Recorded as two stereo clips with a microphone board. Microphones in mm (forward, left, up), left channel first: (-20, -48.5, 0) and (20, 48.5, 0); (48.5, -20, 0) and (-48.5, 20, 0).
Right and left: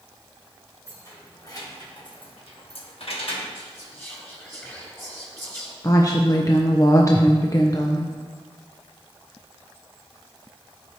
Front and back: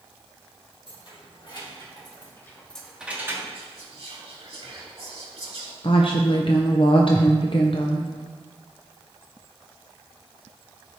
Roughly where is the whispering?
Behind.